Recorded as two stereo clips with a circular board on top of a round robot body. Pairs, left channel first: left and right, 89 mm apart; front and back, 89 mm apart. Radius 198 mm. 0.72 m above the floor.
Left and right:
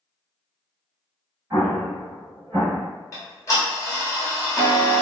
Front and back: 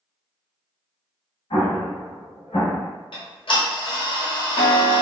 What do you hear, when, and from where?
1.5 s an explosion: 25° right, 0.7 m
3.1 s ticking: 30° left, 1.0 m